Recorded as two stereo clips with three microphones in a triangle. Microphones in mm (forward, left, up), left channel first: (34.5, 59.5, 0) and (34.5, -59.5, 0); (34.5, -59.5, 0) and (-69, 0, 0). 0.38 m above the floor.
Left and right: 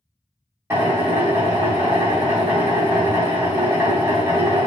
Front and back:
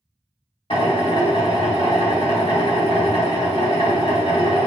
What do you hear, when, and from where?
0.7 s a drill: 30° right, 1.7 m